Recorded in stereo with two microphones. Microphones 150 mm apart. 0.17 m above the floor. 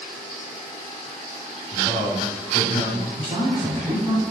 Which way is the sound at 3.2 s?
30° right (ahead or behind).